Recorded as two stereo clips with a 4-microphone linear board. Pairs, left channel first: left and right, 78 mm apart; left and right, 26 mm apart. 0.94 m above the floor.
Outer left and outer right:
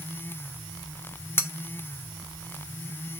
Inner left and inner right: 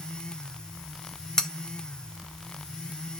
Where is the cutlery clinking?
25° left (ahead or behind), 0.6 m.